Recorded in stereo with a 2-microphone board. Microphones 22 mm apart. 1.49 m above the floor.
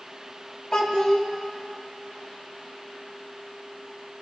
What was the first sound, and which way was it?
A child speaking, 40° left (ahead or behind).